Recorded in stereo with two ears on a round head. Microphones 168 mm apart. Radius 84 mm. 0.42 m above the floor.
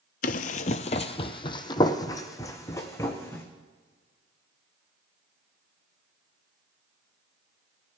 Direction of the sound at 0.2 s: 50° left (ahead or behind).